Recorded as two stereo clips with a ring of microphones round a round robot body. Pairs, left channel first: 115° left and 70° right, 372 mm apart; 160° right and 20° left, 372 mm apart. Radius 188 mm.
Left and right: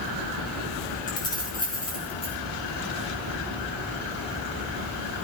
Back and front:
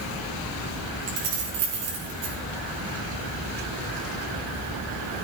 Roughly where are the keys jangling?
Ahead left.